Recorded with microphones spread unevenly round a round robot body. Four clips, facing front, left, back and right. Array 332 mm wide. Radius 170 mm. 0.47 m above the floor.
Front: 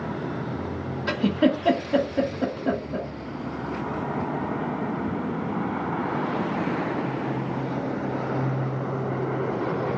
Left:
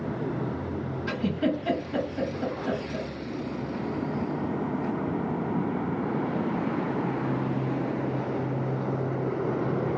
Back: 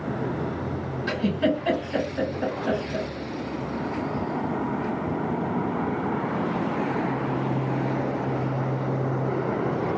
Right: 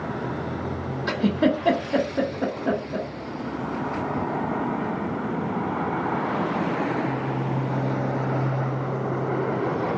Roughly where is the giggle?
Ahead right.